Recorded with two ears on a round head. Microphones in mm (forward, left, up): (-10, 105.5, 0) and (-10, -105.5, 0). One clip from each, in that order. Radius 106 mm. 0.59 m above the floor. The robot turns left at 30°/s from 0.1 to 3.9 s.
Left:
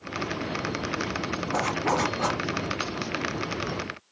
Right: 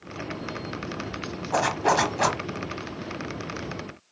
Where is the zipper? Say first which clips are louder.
Right 4 dB; 75° right (ahead or behind), 1.0 m; by 2.4 s 70° right (ahead or behind), 1.0 m.